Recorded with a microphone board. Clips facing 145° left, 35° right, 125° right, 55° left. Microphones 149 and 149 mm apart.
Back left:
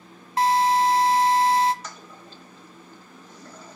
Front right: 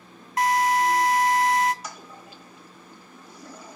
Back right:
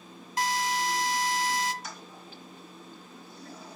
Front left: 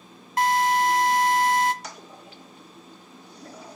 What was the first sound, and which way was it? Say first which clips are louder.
A drill: back left 2 dB, front left 8 dB; 85° left.